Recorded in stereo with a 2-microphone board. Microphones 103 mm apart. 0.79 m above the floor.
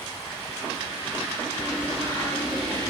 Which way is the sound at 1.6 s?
25° left (ahead or behind).